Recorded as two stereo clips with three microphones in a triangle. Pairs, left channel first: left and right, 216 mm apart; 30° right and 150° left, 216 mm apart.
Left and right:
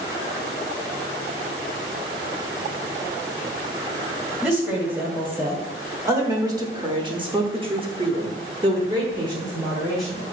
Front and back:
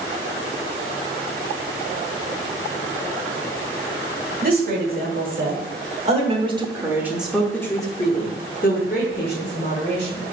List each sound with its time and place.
4.4 s a woman speaking: 170° right, 1.9 m; by 10.2 s 20° right, 1.6 m